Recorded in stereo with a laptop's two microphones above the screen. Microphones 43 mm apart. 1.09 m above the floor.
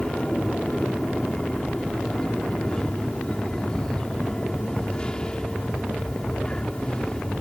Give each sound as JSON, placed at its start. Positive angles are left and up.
{"t": 0.0, "sound": "an aircraft", "side_deg": 20}